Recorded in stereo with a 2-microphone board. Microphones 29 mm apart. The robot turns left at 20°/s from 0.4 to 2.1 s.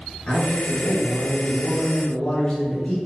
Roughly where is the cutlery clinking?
No cutlery clinking in this recording.